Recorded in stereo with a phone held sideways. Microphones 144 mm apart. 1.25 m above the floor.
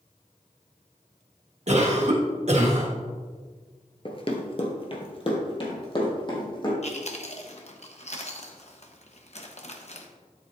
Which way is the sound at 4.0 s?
40° left (ahead or behind).